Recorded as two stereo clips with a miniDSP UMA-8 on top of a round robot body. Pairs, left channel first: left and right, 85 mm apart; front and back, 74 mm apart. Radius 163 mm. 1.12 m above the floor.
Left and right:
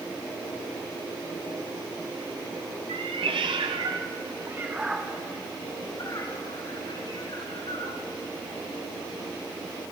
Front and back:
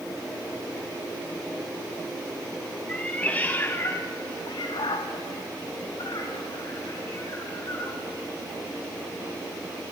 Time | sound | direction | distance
2.9 | a cat meowing | 75° right | 1.4 m